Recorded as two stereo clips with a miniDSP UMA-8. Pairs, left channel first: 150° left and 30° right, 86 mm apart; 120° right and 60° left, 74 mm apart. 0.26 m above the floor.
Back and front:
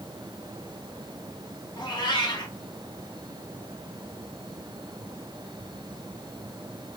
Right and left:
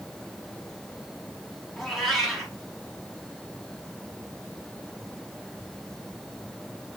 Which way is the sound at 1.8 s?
155° left.